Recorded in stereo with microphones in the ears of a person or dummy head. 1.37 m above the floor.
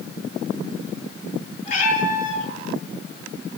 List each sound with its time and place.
1.6 s a cat meowing: 45° left (ahead or behind), 6.5 m